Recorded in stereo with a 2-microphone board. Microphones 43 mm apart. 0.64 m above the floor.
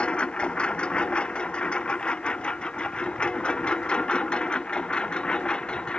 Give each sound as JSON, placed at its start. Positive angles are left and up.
{"t": 0.0, "sound": "a lawn mower", "side_deg": 25}